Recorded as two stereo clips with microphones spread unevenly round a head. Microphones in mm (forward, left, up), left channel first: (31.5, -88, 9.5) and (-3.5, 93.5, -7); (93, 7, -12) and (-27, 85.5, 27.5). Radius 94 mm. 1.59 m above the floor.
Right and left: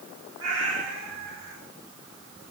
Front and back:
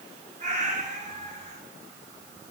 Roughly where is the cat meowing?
Behind left.